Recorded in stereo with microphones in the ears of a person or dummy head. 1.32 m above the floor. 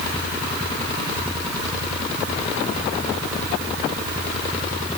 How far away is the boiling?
I don't hear boiling.